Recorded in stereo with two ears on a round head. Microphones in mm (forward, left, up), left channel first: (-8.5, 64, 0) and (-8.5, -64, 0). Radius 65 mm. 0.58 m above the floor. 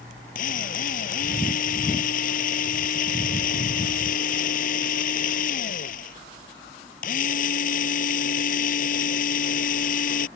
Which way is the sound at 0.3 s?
65° left (ahead or behind).